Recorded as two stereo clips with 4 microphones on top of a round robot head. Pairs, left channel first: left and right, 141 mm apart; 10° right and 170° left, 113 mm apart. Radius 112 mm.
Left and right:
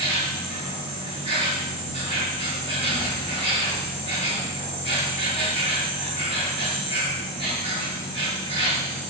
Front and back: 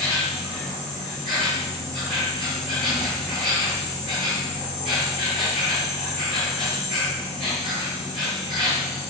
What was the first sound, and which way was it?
An insect, 140° right.